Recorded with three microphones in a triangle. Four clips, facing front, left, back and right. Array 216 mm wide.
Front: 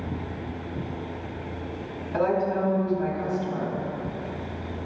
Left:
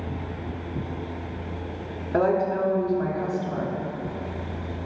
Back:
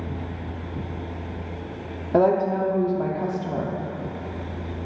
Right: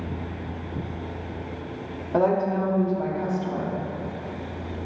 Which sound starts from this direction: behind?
A woman speaking, at 2.1 s.